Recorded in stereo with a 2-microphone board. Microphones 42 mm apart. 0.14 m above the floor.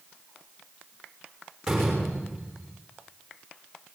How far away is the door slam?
About 6.5 m.